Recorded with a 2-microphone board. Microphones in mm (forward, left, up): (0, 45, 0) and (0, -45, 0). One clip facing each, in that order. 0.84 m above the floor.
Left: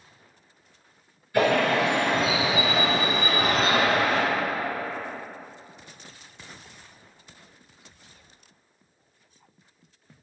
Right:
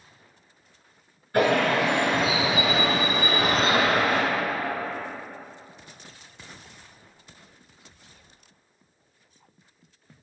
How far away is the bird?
About 1.8 m.